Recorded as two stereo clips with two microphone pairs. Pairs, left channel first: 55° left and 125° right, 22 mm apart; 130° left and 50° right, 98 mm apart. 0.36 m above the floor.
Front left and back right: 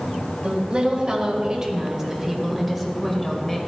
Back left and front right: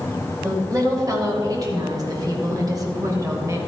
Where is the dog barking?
I don't hear a dog barking.